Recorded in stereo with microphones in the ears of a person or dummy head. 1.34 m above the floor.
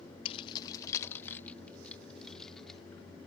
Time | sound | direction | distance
0.2 | keys jangling | 35° left (ahead or behind) | ?